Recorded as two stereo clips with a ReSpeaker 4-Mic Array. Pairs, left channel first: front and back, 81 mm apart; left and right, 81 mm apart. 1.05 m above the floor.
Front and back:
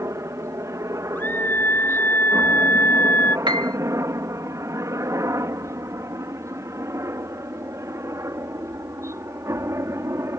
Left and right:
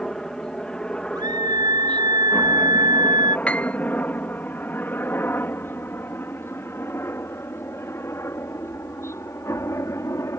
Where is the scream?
65° right.